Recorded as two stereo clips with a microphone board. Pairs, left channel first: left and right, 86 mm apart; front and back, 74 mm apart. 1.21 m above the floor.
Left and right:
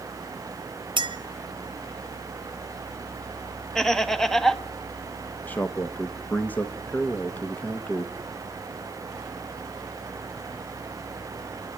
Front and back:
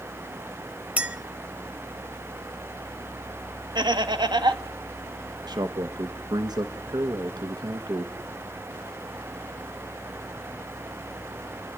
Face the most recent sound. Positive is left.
turn(degrees=160)